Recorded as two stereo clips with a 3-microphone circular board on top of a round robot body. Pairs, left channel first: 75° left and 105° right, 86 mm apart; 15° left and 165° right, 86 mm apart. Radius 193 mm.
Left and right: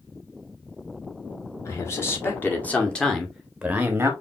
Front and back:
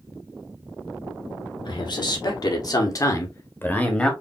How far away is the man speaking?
About 2.5 m.